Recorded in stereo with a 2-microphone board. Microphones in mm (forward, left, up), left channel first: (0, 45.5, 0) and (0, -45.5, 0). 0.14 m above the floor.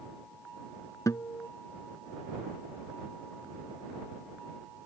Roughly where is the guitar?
Left.